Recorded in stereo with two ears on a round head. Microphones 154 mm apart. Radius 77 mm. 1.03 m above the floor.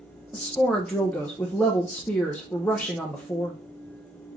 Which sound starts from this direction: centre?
A woman speaking, at 0.3 s.